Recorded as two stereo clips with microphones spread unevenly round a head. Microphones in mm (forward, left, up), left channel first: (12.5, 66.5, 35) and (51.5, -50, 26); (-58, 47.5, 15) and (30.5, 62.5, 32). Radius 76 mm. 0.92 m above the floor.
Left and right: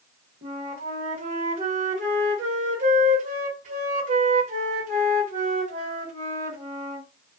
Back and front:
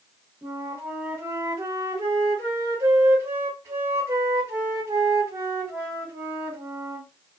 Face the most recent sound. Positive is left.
turn(degrees=-65)